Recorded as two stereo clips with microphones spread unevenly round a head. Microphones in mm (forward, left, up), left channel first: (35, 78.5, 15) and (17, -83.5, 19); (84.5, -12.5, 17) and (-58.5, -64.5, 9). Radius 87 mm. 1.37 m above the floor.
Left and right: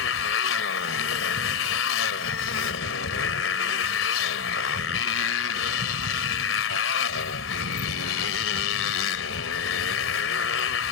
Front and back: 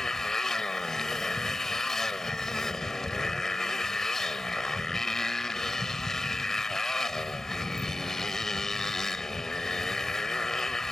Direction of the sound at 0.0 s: 105° left.